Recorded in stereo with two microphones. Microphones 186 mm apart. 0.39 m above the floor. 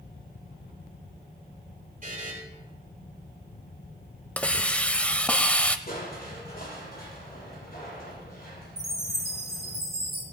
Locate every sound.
2.0 s a buzzer: 45° right (ahead or behind), 6 m
4.4 s a hiss: 5° left (ahead or behind), 0.6 m
5.9 s crushing: 55° left (ahead or behind), 6.5 m
8.8 s a chime: 70° right (ahead or behind), 5 m